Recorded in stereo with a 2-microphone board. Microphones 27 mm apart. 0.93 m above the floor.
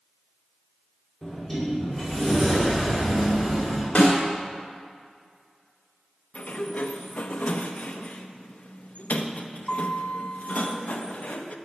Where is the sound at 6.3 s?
60° left (ahead or behind), 0.5 m.